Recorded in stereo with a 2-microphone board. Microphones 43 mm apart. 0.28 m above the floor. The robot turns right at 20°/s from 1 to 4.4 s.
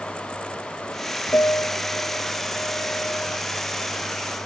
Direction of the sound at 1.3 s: 100° left.